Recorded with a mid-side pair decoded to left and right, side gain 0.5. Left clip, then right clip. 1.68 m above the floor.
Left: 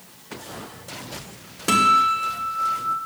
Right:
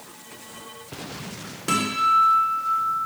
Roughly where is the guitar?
Ahead left.